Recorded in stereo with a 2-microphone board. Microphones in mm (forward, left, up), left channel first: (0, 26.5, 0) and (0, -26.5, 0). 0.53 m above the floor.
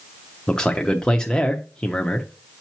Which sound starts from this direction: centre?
A man speaking, at 0.5 s.